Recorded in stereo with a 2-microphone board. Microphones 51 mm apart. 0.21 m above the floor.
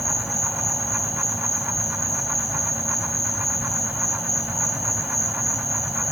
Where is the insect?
Centre (ahead or behind), 1.5 m.